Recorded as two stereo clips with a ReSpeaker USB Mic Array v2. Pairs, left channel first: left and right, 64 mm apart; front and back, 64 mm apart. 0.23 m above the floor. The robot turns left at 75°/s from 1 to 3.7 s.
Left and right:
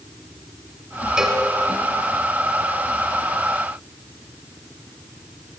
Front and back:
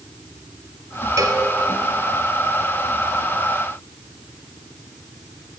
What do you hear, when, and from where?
1.2 s a cowbell: 170° right, 0.8 m; by 1.4 s 170° left, 0.8 m